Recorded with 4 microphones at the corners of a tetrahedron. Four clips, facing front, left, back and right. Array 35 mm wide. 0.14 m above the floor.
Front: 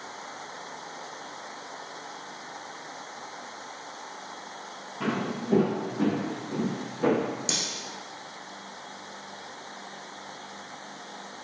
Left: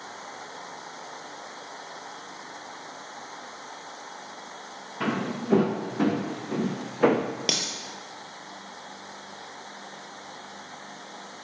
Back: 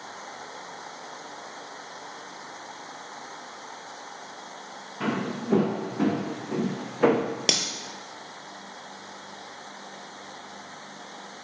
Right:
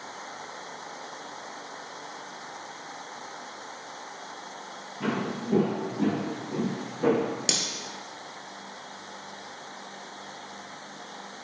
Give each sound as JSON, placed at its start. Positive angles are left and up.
{"t": 5.0, "sound": "footsteps", "azimuth_deg": 105, "distance_m": 5.0}
{"t": 7.5, "sound": "cutlery clinking", "azimuth_deg": 160, "distance_m": 2.0}